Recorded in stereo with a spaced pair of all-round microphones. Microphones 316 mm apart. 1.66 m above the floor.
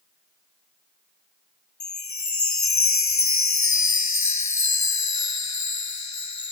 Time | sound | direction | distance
1.8 | a chime | 60° left (ahead or behind) | ?